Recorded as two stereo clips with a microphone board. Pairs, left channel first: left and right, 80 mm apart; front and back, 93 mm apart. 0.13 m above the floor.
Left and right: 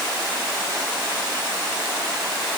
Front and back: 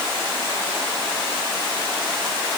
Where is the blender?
I don't hear a blender.